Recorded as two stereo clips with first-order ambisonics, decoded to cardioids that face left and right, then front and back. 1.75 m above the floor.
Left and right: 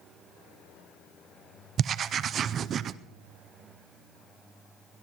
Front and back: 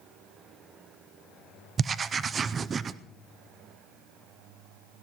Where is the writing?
125° right, 0.5 m.